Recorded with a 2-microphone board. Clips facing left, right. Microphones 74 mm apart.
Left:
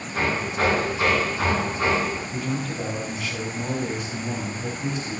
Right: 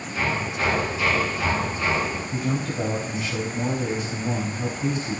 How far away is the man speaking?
About 4 m.